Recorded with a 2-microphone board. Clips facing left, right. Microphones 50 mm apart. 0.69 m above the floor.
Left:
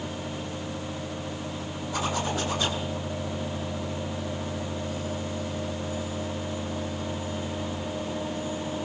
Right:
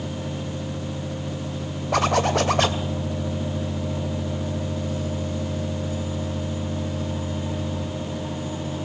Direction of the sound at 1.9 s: 65° right (ahead or behind).